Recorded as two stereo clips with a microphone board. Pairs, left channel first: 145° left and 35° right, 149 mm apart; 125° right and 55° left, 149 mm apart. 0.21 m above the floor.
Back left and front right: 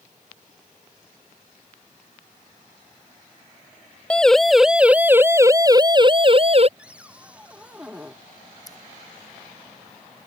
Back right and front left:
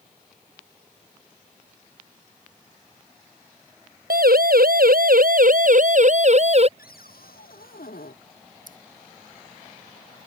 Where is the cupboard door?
115° right.